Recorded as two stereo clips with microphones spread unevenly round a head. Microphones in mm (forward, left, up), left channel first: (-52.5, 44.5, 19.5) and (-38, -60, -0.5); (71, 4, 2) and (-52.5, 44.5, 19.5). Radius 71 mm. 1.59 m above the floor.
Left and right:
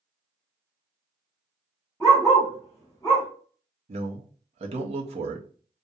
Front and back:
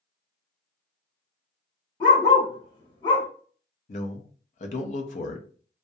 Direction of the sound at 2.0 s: 30° left.